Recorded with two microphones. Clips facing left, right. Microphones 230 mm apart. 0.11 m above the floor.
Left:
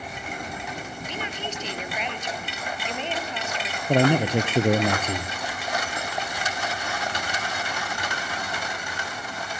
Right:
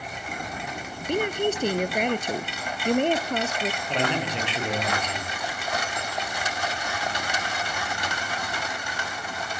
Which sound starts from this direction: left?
A man speaking, at 3.9 s.